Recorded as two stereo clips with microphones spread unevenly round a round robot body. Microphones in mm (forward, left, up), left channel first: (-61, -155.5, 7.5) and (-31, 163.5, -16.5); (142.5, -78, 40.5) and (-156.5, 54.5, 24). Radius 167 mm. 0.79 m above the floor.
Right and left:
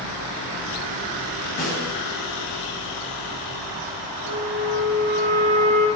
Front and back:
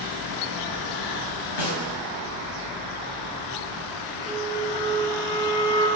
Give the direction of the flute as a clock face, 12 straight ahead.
10 o'clock.